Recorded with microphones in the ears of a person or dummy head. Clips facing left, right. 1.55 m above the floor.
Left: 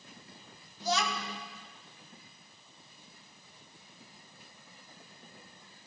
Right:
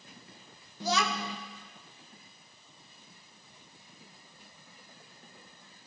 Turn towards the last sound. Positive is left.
turn(degrees=-65)  # may be behind; listen again after turning